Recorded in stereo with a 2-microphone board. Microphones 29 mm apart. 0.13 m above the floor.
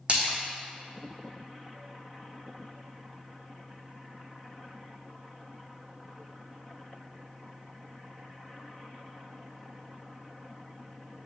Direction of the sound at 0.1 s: 45° right (ahead or behind).